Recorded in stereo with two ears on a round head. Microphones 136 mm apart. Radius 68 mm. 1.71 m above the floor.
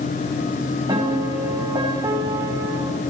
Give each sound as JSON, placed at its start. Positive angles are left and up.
{"t": 0.9, "sound": "a piano", "side_deg": -30, "distance_m": 8.5}